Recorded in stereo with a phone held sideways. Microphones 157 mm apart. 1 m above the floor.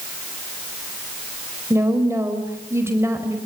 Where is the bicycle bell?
I don't hear a bicycle bell.